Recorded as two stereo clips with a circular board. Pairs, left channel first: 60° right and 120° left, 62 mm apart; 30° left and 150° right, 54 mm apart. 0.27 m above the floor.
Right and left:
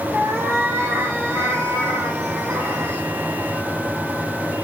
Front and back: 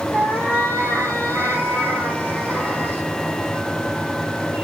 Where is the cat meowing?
160° left, 4 m.